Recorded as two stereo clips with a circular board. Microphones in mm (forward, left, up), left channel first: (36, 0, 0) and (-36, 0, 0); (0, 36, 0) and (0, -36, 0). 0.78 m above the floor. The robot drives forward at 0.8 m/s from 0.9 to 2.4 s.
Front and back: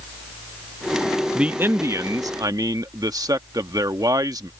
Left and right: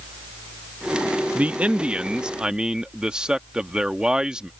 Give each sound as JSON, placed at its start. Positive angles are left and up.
{"t": 1.4, "sound": "a man speaking", "azimuth_deg": -120}